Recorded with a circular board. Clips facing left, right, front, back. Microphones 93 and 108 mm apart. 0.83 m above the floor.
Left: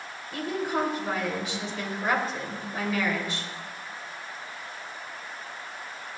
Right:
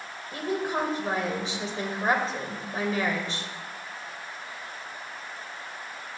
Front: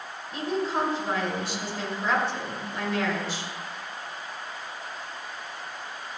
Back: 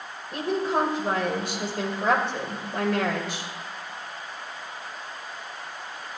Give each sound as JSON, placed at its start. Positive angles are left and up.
{"t": 0.3, "sound": "a woman speaking", "azimuth_deg": -150, "distance_m": 3.0}